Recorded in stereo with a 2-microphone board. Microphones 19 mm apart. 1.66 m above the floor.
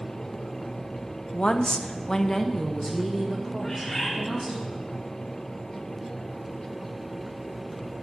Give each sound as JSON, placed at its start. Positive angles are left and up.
{"t": 1.3, "sound": "a woman speaking", "side_deg": 65, "distance_m": 0.7}
{"t": 3.6, "sound": "a bird", "side_deg": 30, "distance_m": 1.8}